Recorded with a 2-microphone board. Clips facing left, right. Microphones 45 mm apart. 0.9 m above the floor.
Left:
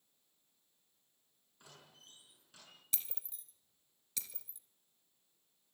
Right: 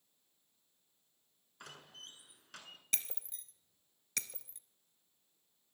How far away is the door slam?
About 6.5 m.